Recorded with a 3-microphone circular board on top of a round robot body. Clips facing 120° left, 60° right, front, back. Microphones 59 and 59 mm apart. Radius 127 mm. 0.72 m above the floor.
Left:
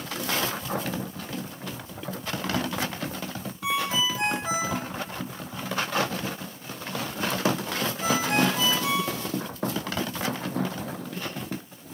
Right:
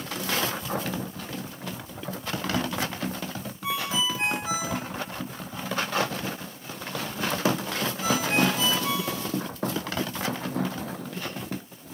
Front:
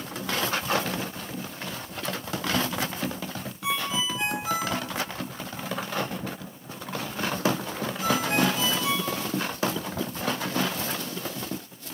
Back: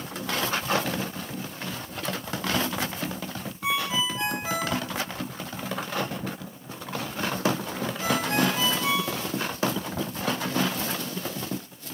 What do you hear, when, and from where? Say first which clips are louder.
3.6 s a ringtone: left 2 dB, back 2 dB; 130° left, 1.9 m